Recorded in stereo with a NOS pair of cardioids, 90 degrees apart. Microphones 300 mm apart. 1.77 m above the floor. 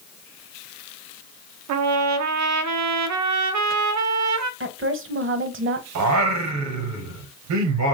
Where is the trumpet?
70° right, 0.6 m.